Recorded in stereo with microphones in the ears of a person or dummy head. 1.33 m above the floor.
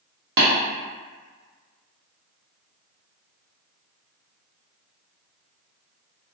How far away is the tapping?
About 0.9 m.